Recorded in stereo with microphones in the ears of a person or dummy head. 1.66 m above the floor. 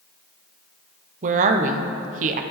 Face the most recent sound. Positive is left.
turn(degrees=-45)  # may be behind; listen again after turning